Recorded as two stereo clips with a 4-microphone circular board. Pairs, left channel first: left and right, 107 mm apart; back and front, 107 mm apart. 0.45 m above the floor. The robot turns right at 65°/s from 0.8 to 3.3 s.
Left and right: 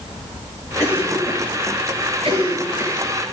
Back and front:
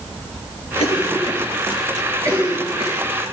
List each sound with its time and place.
0.8 s a cough: 155° right, 8.5 m; by 3.1 s 5° right, 8.5 m